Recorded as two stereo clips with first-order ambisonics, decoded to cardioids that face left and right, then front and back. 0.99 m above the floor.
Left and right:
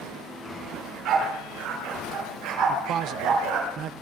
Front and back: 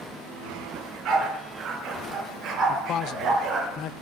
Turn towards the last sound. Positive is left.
turn(degrees=-45)